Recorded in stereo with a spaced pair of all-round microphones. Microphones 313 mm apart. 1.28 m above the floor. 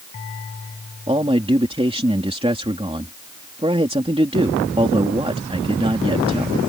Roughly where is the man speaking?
Centre.